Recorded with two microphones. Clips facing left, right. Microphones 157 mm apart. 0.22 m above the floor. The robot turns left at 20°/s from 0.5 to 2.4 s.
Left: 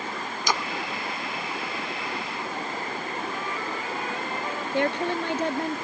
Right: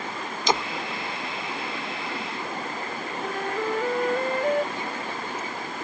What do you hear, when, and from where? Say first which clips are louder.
0.5 s a splash: right 4 dB; 25° right (ahead or behind); by 0.7 s 20° right (ahead or behind)
3.2 s a flute: right 4 dB; 50° right (ahead or behind)
4.7 s a woman speaking: left 8 dB; 65° left (ahead or behind)